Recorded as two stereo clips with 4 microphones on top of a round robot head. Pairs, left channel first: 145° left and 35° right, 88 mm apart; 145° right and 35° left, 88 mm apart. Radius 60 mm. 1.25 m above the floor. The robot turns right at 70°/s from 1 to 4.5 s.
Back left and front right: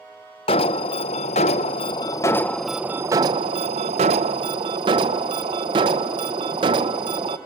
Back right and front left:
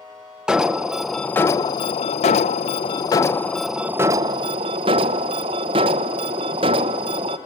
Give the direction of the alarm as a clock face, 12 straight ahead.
8 o'clock.